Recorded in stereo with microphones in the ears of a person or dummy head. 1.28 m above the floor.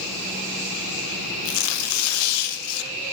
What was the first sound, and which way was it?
Tearing paper, 85° left.